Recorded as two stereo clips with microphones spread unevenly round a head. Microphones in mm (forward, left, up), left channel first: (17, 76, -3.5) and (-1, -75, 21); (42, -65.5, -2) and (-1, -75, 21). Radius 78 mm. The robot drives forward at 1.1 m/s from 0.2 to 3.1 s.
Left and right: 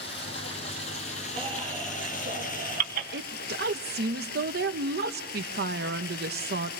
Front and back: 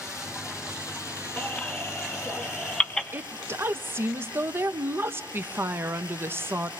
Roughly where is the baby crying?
Ahead right.